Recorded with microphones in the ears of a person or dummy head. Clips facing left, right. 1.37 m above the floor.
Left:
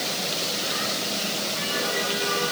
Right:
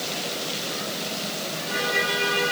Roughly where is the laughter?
No laughter in this recording.